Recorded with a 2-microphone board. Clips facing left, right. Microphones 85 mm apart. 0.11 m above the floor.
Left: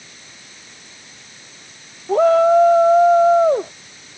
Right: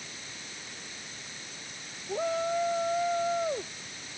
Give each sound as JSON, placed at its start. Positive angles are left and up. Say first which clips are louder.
{"t": 2.1, "sound": "a shout", "louder": "left 17 dB", "side_deg": 70}